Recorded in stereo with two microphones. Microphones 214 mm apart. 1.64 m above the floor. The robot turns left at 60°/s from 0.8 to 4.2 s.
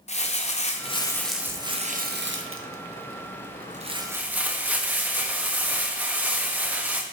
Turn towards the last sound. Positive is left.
turn(degrees=-170)